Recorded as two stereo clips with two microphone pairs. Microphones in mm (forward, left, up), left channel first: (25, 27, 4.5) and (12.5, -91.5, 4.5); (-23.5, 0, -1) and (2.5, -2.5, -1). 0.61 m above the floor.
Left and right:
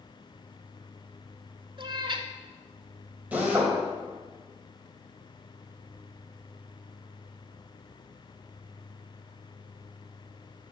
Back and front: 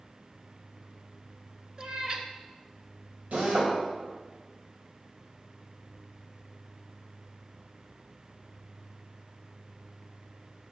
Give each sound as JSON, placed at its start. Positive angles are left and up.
{"t": 1.8, "sound": "a cat meowing", "azimuth_deg": -55, "distance_m": 1.1}
{"t": 3.3, "sound": "a drill", "azimuth_deg": -20, "distance_m": 3.0}